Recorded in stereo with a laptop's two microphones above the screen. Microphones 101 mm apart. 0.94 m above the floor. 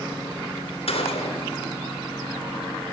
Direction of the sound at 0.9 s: 70° left (ahead or behind).